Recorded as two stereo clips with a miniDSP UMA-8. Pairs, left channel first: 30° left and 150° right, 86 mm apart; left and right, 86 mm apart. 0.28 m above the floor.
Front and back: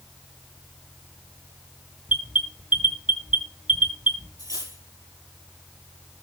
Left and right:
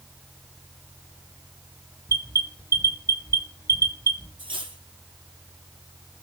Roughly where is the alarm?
Behind left.